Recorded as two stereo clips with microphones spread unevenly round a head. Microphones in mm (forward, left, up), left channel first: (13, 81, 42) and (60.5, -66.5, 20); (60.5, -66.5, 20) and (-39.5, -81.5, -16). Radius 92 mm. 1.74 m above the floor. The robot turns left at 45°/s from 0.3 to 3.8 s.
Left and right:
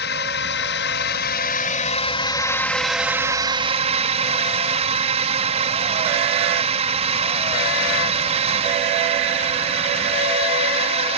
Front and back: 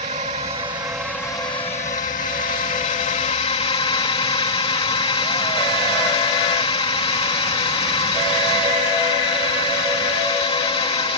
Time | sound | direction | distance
0.0 | a drone | 135° left | ?